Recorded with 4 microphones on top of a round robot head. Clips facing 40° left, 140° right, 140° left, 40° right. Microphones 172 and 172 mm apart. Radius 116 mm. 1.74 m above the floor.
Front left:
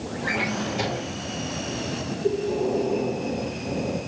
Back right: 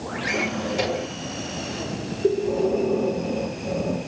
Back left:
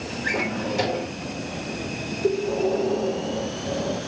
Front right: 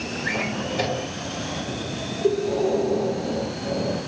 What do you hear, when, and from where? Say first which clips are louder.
0.2 s a drawer: back right 2 dB, back left 2 dB; 175° right, 4 m
2.2 s breathing: back right 3 dB, front right 1 dB; 130° right, 3 m